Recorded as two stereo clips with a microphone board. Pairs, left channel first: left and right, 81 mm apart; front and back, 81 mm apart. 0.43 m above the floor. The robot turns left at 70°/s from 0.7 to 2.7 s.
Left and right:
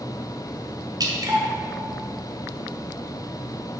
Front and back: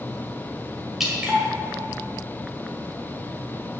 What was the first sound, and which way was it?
Dripping, 95° right.